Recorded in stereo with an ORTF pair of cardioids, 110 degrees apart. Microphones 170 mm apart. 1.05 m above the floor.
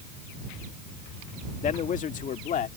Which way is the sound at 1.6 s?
50° left.